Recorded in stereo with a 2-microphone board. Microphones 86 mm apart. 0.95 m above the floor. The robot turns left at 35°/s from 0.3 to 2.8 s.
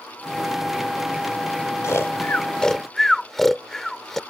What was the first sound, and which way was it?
Snoring, 35° left (ahead or behind).